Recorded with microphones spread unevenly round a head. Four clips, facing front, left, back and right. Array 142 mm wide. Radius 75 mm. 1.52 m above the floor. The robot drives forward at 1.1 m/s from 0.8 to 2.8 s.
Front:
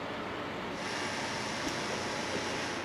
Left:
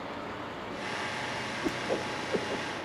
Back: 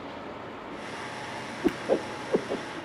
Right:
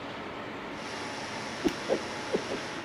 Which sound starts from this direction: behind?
A whoosh, at 1.6 s.